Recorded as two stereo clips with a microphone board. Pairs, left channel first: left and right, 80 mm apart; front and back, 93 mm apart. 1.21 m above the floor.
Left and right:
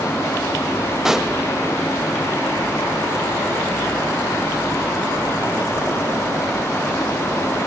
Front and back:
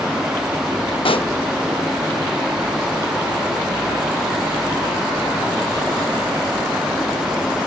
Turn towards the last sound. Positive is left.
turn(degrees=-5)